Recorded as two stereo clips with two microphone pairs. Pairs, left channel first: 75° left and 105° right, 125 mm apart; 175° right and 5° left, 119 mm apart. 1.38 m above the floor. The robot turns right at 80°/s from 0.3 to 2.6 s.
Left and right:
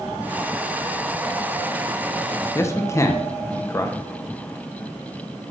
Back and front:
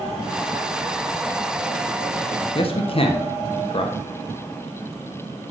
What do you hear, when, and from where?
2.5 s a man speaking: 140° left, 1.1 m; by 4.0 s 145° left, 1.1 m